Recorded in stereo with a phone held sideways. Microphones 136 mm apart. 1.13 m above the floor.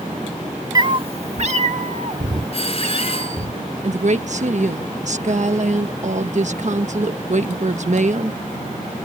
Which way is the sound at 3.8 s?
60° right (ahead or behind).